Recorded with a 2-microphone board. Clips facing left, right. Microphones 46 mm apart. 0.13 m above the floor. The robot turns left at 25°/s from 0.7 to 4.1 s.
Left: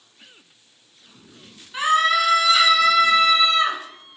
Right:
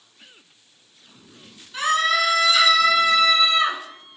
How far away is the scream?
About 1.1 m.